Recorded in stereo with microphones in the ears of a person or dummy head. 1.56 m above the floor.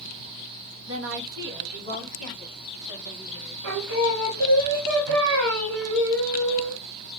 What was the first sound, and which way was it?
A woman speaking, 75° right (ahead or behind).